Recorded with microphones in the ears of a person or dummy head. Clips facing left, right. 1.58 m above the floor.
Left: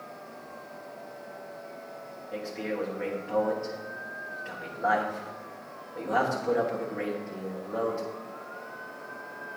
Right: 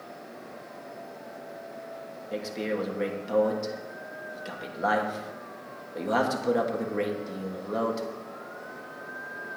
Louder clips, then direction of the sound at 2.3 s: Right 2 dB; 45° right (ahead or behind).